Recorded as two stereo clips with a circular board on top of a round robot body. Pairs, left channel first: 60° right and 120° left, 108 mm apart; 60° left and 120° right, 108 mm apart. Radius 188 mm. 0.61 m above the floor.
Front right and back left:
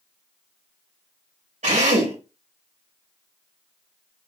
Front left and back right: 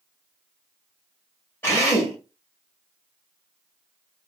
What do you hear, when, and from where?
1.6 s a drill: 130° left, 2.5 m